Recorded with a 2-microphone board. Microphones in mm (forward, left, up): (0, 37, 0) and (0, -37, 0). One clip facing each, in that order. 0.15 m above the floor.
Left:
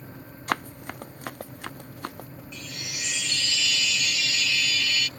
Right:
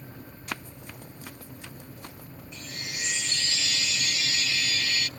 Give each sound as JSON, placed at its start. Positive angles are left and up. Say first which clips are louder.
{"t": 0.5, "sound": "running footsteps", "louder": "left 10 dB", "side_deg": 65}
{"t": 2.5, "sound": "a chime", "louder": "even", "side_deg": -35}